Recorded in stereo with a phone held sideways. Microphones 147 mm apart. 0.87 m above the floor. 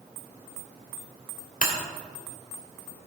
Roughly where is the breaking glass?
Left.